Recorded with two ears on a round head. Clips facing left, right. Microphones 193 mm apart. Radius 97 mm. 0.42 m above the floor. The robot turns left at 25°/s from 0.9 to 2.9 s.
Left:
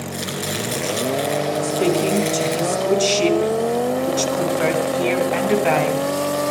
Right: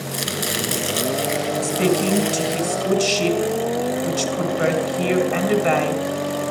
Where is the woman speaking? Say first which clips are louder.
Even; 135° right, 3.5 m; by 6.0 s 170° right, 3.5 m.